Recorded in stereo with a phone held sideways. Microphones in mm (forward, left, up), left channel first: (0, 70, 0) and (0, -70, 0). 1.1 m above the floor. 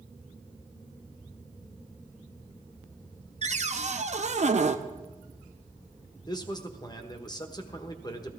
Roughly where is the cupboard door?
Right.